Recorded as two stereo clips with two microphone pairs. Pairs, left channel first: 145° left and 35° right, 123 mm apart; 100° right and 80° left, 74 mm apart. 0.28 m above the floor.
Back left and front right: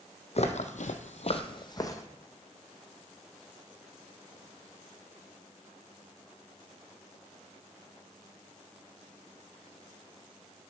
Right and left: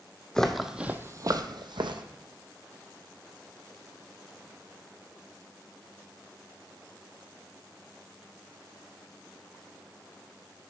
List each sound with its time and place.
0.3 s footsteps: straight behind, 0.8 m; by 2.0 s 80° left, 0.8 m